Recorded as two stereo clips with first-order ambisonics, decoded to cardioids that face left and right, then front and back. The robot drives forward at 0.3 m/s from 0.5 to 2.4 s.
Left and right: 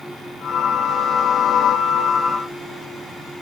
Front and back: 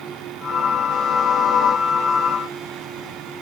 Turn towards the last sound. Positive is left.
No sound to turn to.